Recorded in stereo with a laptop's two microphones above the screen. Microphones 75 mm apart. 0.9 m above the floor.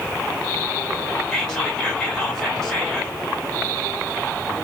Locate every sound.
1.3 s whispering: 5° left (ahead or behind), 2.5 m